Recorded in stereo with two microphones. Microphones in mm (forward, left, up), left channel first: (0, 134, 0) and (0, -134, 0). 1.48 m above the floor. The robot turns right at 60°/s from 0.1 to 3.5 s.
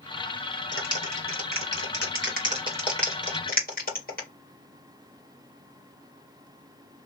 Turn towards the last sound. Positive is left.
turn(degrees=35)  # may be behind; listen again after turning